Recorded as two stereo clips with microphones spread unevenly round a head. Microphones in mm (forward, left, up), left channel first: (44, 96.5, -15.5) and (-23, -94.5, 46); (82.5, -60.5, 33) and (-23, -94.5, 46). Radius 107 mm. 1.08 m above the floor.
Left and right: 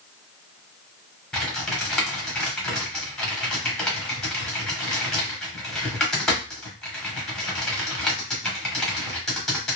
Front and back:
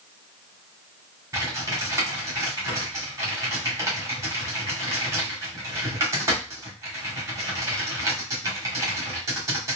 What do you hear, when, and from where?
1.3 s typing on a keyboard: 135° left, 0.9 m